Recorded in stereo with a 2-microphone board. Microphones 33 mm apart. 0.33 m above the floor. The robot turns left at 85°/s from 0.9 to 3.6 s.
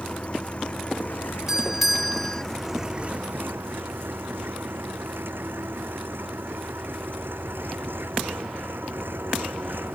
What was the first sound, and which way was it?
An engine running, 145° left.